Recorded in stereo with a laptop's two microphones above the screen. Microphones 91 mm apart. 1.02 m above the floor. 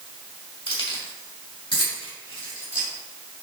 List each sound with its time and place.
0.7 s keys jangling: 70° left (ahead or behind), 3 m; by 2.9 s 75° left (ahead or behind), 4 m